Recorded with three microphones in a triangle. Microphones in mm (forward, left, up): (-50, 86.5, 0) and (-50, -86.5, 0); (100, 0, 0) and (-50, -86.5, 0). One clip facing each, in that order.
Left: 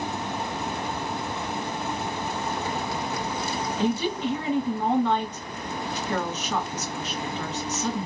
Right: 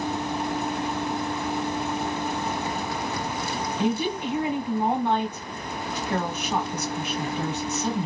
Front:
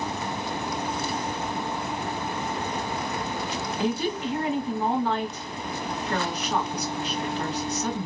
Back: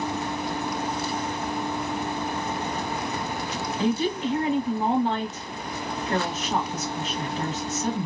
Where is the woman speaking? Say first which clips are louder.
Even, back 3 dB; 150° right, 1.5 m.